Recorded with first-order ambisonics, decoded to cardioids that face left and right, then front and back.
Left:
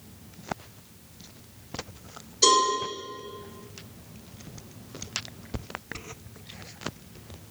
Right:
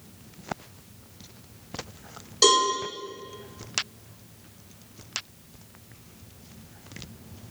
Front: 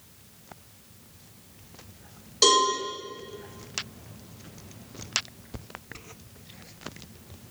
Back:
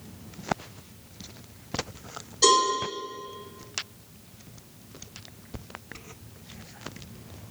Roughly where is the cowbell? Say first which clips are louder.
Right 1 dB, even; ahead right.